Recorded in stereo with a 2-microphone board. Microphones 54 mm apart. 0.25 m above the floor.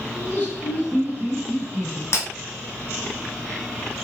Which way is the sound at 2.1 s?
60° left (ahead or behind).